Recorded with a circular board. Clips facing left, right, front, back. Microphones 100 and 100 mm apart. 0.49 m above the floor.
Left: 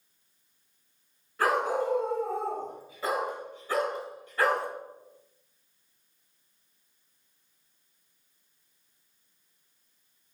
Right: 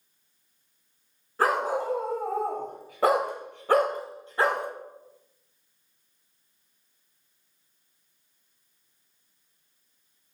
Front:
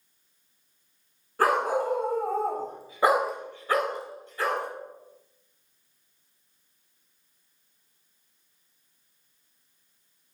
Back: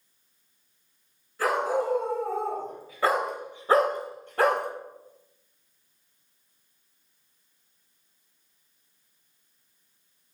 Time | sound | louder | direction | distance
1.4 | a dog barking | right 1 dB, front 2 dB | 30° right | 2.5 m